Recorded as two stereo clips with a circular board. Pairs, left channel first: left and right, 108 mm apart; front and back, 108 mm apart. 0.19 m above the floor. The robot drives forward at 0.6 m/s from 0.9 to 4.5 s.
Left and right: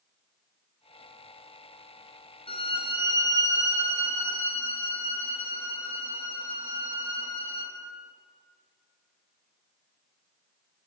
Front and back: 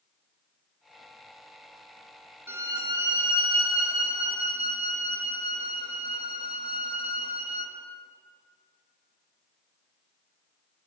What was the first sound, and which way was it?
A violin, 110° left.